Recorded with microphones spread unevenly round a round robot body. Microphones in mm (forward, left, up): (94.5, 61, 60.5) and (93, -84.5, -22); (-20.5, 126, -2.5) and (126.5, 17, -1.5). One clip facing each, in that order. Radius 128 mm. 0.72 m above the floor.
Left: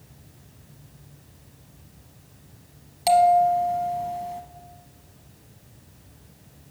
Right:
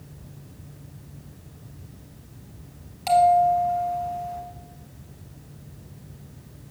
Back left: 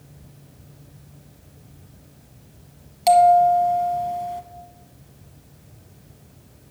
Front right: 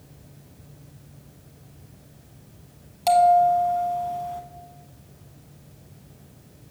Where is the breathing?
I don't hear breathing.